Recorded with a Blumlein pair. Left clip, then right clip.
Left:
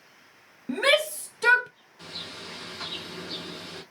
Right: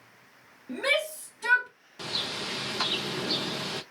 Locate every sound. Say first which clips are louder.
0.7 s a shout: left 5 dB; 45° left, 1.0 m; by 1.7 s 70° left, 0.6 m
2.0 s a bird: right 7 dB; 30° right, 0.7 m